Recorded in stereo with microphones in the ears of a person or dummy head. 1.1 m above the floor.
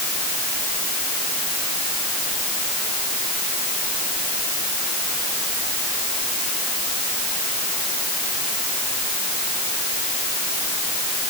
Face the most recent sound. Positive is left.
No sound to turn to.